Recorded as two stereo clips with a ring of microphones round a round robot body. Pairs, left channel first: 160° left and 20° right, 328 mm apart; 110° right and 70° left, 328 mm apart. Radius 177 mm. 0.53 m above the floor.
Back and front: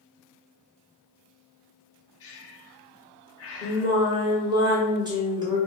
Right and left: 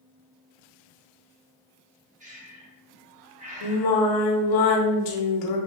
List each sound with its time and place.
2.2 s breathing: 130° left, 0.9 m
3.6 s singing: 100° right, 0.9 m